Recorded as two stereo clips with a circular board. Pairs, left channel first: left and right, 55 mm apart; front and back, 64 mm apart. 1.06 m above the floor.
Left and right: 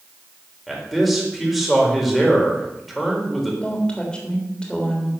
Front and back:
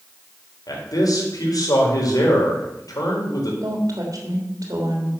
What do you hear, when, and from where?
0.7 s a man speaking: straight ahead, 4 m
3.6 s a woman speaking: 165° left, 3 m